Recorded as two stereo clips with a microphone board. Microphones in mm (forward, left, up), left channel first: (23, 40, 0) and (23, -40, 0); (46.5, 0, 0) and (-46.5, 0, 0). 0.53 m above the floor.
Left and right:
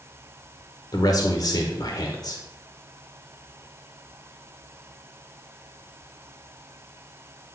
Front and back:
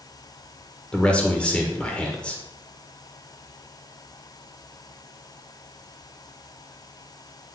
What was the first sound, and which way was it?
A man speaking, 75° left.